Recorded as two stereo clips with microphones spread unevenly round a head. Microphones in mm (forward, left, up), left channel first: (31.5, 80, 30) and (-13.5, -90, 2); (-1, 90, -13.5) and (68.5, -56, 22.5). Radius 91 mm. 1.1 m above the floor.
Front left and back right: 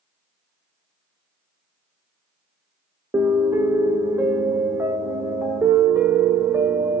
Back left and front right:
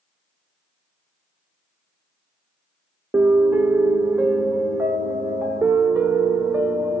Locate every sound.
3.1 s a piano: 25° right, 0.9 m